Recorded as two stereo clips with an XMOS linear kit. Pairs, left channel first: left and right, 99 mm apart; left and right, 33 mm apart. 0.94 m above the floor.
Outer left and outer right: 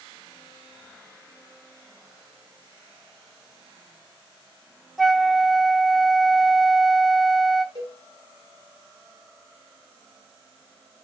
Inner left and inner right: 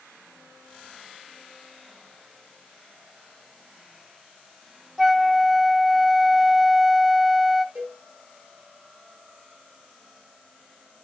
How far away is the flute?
About 0.5 m.